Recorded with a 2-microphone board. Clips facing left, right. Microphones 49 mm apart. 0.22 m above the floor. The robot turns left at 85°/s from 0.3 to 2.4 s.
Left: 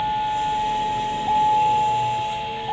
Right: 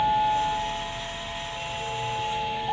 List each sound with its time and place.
0.0 s a vehicle: straight behind; by 2.7 s straight ahead